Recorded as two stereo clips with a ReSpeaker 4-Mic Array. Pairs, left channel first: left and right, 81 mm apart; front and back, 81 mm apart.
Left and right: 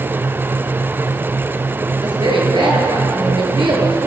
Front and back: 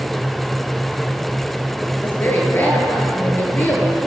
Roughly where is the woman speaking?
Ahead right.